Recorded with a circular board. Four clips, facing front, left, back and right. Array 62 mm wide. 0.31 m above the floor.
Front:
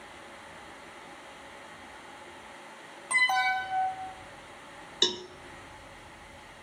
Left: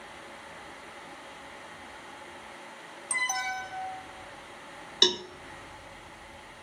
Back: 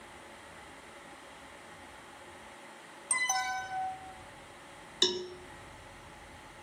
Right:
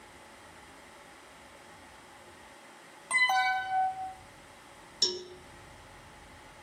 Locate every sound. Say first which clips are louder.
3.1 s an alarm: right 5 dB, front 7 dB; 45° right, 1.3 m
5.0 s a cowbell: left 9 dB, even; 85° left, 0.6 m